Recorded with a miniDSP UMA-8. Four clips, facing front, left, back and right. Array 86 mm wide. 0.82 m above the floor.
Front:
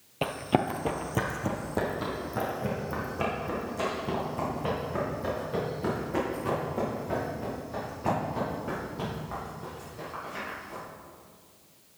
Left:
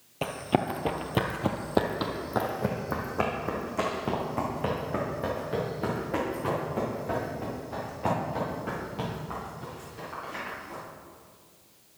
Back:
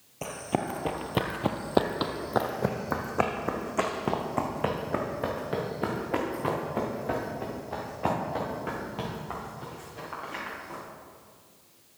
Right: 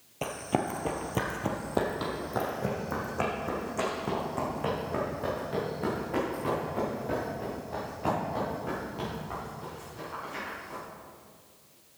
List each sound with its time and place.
0.2 s running footsteps: 20° left, 0.9 m; by 10.8 s 170° left, 7 m